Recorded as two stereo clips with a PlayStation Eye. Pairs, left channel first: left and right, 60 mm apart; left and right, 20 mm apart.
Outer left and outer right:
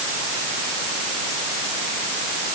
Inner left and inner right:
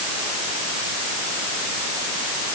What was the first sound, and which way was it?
Only background noise.